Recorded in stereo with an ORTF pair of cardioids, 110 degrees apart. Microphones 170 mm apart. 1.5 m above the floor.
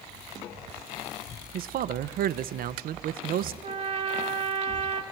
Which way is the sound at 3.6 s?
35° right.